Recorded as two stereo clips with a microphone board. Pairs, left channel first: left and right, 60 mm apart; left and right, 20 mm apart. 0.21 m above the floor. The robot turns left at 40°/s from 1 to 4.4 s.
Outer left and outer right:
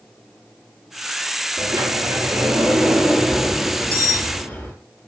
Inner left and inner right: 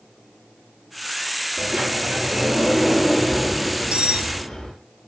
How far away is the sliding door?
About 6 m.